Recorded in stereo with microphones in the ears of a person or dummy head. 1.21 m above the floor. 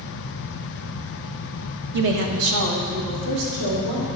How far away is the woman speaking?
About 0.9 m.